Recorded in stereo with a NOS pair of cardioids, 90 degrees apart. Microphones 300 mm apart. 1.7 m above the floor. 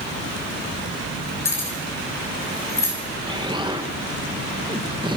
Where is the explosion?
15° right, 1.8 m.